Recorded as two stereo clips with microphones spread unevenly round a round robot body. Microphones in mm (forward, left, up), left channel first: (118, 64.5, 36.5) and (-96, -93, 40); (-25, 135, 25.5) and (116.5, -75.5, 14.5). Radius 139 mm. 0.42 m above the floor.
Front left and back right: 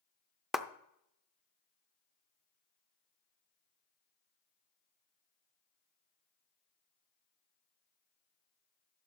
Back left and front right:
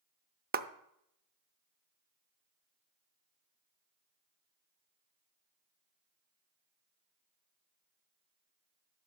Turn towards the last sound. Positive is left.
turn(degrees=-55)